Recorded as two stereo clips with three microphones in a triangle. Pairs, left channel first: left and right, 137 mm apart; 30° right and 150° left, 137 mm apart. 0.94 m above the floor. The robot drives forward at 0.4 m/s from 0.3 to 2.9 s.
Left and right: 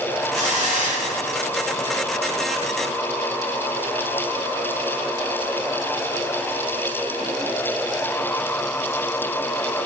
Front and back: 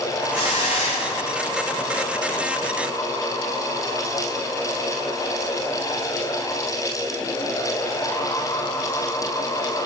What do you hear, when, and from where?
0.3 s a hiss: 65° right, 3 m; by 1.7 s 75° right, 3 m